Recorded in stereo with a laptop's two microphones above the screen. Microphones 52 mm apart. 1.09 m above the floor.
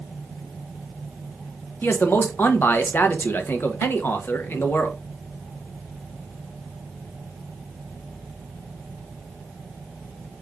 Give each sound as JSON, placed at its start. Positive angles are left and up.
{"t": 1.8, "sound": "a man speaking", "side_deg": 45, "distance_m": 0.7}